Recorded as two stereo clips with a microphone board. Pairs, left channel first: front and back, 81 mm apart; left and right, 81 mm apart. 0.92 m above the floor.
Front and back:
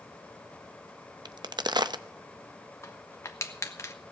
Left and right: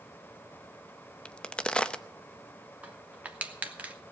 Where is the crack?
165° left, 0.6 m.